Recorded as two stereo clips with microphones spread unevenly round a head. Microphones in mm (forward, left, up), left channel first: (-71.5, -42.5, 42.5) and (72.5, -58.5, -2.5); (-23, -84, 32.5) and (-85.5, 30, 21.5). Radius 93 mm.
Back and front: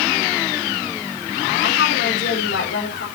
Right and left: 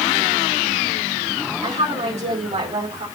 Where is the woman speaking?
155° left, 5.5 m.